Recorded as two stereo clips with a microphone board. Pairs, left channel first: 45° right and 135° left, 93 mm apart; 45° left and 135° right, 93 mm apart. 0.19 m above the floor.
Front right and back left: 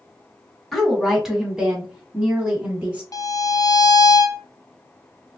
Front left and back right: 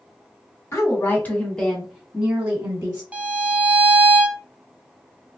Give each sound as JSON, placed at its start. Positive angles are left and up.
{"t": 0.7, "sound": "a woman speaking", "azimuth_deg": 45, "distance_m": 1.4}
{"t": 3.1, "sound": "a violin", "azimuth_deg": -65, "distance_m": 0.6}